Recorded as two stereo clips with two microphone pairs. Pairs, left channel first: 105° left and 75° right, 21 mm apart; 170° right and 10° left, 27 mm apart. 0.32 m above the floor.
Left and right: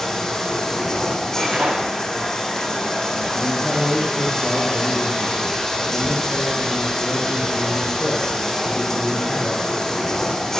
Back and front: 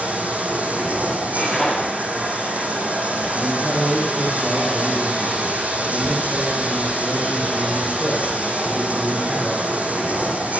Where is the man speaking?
70° left, 6.5 m.